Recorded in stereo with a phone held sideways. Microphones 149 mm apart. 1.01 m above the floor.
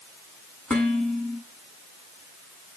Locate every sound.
0.7 s dishes clattering: 5° left (ahead or behind), 7.5 m